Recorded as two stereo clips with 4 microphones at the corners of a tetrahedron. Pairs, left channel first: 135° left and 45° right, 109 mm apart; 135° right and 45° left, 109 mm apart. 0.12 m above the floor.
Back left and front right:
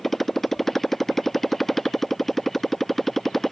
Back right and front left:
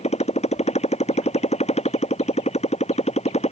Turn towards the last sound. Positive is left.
turn(degrees=-135)